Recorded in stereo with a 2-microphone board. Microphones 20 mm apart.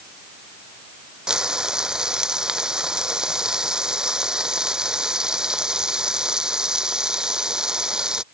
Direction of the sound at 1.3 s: 35° right (ahead or behind).